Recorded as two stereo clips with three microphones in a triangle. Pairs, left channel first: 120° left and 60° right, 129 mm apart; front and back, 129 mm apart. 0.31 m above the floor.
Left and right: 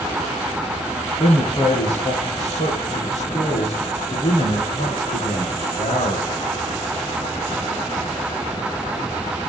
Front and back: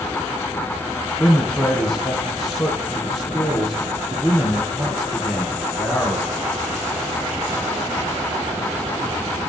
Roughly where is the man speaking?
Left.